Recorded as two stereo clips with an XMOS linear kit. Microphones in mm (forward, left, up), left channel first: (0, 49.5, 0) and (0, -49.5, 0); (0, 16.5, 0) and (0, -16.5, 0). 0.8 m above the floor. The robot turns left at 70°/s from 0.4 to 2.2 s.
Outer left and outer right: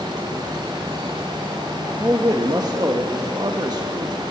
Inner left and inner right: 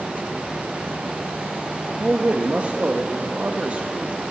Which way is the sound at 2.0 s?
30° right (ahead or behind).